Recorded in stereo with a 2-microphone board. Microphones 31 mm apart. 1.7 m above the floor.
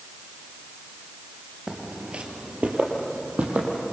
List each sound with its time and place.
1.7 s footsteps: 30° right (ahead or behind), 1.9 m; by 3.9 s 60° right (ahead or behind), 4.5 m